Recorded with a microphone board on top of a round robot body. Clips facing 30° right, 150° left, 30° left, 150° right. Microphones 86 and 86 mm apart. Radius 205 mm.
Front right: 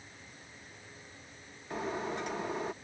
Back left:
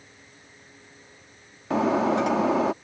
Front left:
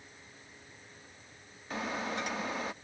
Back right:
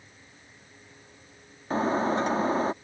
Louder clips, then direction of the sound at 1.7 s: Back left 14 dB, back right 11 dB; 155° left.